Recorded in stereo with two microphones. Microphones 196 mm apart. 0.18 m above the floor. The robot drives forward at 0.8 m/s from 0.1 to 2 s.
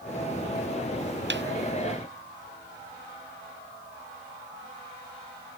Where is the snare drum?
65° right (ahead or behind).